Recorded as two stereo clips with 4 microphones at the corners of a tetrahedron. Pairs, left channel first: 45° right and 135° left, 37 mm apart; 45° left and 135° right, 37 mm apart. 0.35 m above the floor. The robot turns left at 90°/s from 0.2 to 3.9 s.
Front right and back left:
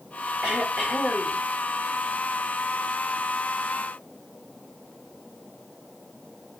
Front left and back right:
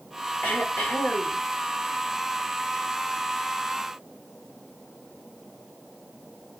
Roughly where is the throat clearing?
Left.